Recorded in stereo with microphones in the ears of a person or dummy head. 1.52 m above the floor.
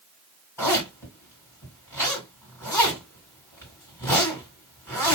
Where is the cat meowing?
No cat meowing in this recording.